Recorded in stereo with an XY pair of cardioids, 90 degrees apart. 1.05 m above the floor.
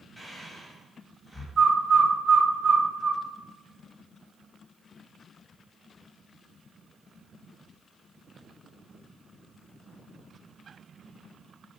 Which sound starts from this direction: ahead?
Breathing, at 0.2 s.